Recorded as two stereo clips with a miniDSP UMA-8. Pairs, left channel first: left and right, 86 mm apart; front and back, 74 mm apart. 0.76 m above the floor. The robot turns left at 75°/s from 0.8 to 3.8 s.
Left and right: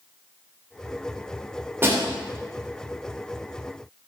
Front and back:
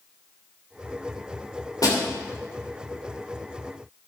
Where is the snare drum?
25° right, 2.5 m; by 2.0 s 35° right, 2.5 m.